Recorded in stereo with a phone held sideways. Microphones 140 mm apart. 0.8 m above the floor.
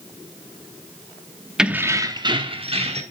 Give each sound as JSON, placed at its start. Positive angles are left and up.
{"t": 1.6, "sound": "keys jangling", "side_deg": -5, "distance_m": 0.7}